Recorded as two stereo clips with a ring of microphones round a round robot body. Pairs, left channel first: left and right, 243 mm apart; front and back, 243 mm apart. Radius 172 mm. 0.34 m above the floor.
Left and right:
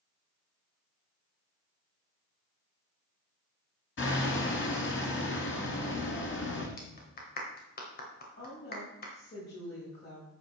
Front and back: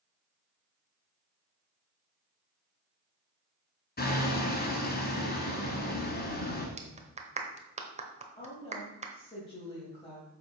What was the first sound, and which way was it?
Hammering, 50° left.